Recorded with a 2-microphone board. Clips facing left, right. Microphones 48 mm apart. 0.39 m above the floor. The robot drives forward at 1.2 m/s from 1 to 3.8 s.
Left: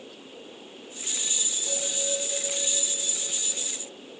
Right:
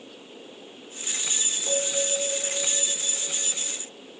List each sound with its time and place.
1.7 s a bell: 30° right (ahead or behind), 5.5 m; by 3.6 s 20° right (ahead or behind), 7.5 m